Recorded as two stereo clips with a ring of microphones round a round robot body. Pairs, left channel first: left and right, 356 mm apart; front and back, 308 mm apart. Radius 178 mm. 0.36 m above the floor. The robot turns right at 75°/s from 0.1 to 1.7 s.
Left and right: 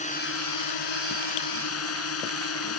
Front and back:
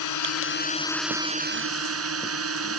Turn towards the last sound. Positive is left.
turn(degrees=140)